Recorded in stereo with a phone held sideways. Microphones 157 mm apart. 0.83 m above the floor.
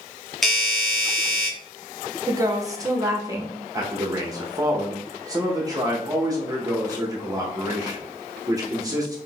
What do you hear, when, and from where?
0.4 s a doorbell: centre (ahead or behind), 1.2 m
2.3 s a woman speaking: 20° right (ahead or behind), 0.8 m
3.7 s a man speaking: 25° right (ahead or behind), 0.7 m